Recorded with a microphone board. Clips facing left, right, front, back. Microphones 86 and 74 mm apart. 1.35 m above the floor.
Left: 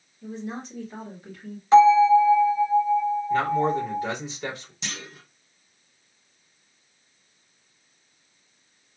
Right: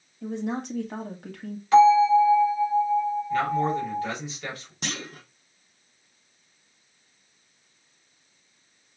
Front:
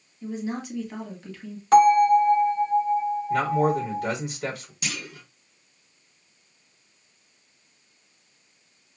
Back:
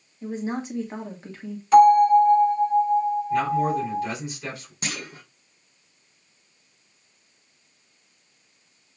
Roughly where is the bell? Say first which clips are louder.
Left 2 dB, back 2 dB; ahead left.